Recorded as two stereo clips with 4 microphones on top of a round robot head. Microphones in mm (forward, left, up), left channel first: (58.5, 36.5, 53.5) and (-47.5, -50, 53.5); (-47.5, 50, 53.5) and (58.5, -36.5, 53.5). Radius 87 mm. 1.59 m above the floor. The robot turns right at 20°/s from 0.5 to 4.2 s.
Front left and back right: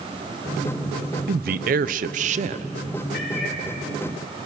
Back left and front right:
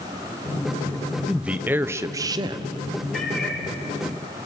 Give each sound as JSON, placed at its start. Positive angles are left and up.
{"t": 1.3, "sound": "a man speaking", "azimuth_deg": -125, "distance_m": 0.6}
{"t": 3.1, "sound": "a cat meowing", "azimuth_deg": 50, "distance_m": 7.0}